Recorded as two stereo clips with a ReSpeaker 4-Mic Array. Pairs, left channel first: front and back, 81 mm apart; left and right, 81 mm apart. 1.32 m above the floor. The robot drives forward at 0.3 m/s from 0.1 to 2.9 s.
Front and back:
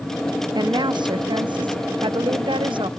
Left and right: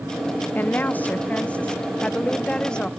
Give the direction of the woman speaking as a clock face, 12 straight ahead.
7 o'clock.